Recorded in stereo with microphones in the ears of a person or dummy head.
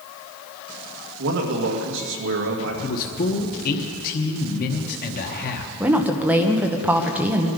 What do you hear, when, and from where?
1.2 s a man speaking: 60° right (ahead or behind), 2.0 m
2.8 s a man speaking: 45° left (ahead or behind), 1.1 m
5.8 s a woman speaking: 5° right (ahead or behind), 1.0 m